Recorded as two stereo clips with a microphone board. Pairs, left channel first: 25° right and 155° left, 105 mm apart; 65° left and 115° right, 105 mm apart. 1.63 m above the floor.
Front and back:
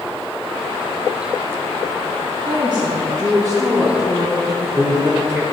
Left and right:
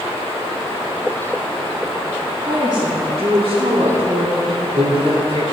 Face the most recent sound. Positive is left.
turn(degrees=-140)